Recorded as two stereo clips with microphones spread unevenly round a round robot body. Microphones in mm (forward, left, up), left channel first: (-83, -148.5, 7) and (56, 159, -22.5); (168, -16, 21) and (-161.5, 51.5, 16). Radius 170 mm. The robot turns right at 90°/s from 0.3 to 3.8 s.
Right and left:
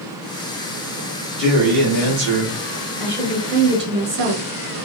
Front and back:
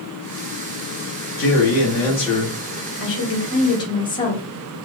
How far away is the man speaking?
About 1.4 m.